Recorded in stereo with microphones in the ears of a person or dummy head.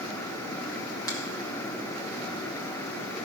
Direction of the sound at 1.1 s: 10° left (ahead or behind).